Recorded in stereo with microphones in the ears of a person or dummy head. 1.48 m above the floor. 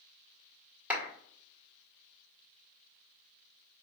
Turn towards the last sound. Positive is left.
turn(degrees=-10)  # may be behind; listen again after turning